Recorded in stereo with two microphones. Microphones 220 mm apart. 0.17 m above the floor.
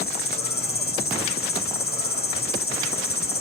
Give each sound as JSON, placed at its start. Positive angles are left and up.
{"t": 0.0, "sound": "an insect", "side_deg": 45, "distance_m": 3.5}